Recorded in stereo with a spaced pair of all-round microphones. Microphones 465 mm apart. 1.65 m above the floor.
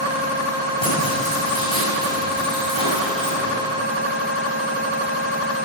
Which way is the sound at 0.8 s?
75° left (ahead or behind).